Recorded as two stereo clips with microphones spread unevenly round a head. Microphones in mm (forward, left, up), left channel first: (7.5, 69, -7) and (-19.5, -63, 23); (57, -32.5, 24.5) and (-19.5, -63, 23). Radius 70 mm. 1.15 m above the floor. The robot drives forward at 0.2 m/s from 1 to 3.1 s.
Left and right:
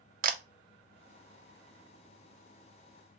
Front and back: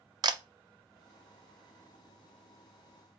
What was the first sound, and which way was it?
A camera shutter, 130° right.